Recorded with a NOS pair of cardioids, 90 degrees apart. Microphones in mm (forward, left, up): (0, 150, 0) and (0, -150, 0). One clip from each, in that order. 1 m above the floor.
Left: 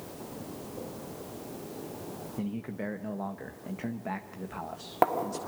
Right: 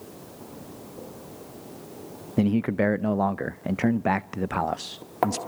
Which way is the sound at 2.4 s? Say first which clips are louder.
Right 15 dB; 60° right.